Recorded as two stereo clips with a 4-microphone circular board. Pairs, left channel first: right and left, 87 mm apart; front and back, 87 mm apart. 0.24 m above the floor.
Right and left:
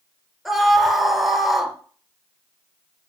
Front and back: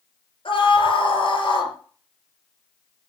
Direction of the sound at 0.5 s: Straight ahead.